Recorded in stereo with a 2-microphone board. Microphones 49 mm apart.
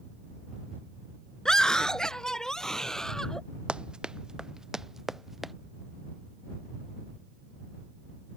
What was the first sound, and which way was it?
A scream, 15° left (ahead or behind).